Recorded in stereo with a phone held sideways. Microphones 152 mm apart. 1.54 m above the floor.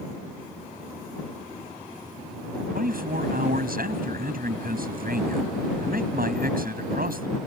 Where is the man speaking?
75° right (ahead or behind).